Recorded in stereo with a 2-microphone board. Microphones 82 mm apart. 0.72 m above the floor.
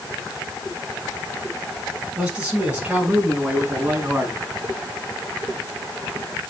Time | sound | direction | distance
2.2 | a man speaking | 10° right (ahead or behind) | 6.5 m